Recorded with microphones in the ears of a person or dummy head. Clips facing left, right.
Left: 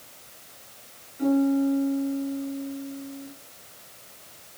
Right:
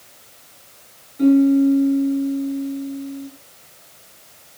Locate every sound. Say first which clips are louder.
1.2 s a piano: right 8 dB; 50° right (ahead or behind), 7.5 m